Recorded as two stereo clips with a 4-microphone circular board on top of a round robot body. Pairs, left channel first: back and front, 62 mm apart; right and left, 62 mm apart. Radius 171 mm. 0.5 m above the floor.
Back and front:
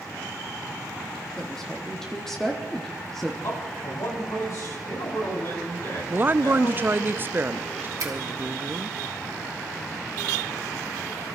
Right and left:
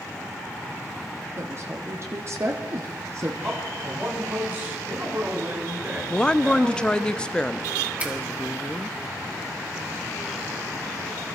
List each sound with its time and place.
1.4 s a woman speaking: 100° left, 1.7 m
3.4 s a man speaking: 150° left, 5 m
6.1 s a woman speaking: 25° right, 0.8 m
8.0 s a finger snap: 25° left, 2.5 m